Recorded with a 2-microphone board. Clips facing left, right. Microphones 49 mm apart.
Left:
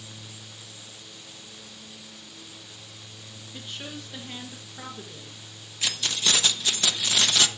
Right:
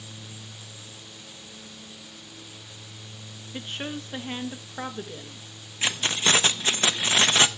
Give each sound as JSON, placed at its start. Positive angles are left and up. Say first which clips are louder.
{"t": 3.5, "sound": "a woman speaking", "louder": "right 5 dB", "side_deg": -40, "distance_m": 1.4}
{"t": 5.8, "sound": "keys jangling", "louder": "right 3 dB", "side_deg": -35, "distance_m": 0.6}